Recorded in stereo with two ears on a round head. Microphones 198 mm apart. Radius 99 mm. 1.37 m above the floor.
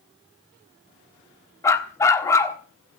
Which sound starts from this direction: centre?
A dog barking, at 1.6 s.